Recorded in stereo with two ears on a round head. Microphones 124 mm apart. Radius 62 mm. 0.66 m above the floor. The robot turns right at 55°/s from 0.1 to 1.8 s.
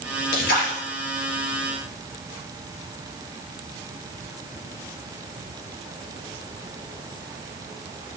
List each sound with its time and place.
0.3 s a splash: 80° left, 5 m; by 0.8 s 55° left (ahead or behind), 5 m